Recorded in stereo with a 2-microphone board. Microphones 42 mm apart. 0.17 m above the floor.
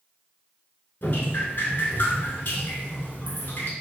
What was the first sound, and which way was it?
Dripping, 60° left (ahead or behind).